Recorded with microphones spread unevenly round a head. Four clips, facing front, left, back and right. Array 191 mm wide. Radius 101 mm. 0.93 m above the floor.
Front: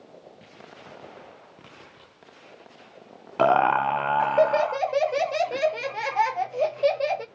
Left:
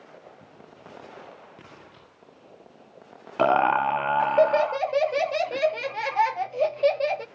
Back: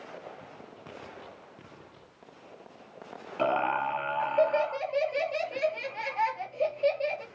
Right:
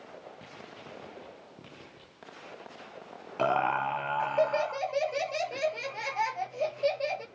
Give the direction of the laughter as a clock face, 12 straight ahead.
11 o'clock.